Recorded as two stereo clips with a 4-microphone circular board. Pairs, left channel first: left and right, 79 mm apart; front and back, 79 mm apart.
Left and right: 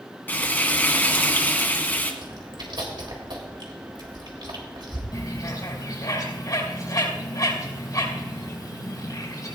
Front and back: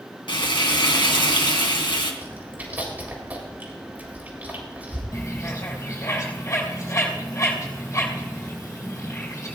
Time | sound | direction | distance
0.3 | frying | 25° left | 2.5 m
2.2 | chewing | 110° right | 3.5 m
5.1 | a bird | 50° left | 4 m